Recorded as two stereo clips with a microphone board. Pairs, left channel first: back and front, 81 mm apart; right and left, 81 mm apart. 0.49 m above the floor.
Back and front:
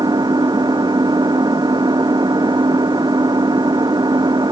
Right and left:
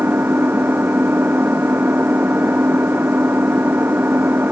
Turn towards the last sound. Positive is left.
turn(degrees=25)